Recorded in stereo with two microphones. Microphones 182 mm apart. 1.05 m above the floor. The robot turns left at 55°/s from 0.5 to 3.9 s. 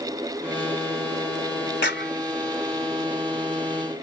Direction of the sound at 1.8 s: 75° left (ahead or behind).